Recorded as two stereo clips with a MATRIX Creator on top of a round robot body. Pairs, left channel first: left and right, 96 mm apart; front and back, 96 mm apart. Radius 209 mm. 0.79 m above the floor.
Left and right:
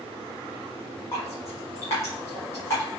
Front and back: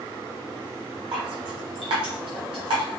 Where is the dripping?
155° left, 1.3 m.